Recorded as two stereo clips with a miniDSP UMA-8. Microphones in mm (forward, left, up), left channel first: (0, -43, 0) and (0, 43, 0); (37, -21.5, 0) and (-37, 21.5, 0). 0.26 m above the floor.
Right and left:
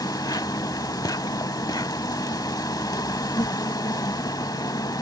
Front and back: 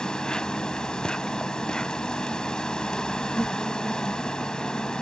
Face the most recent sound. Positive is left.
turn(degrees=-105)